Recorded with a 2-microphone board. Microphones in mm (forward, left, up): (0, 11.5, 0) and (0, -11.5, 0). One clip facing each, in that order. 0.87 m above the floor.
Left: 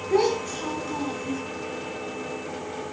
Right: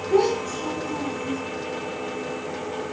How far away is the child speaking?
About 1.5 m.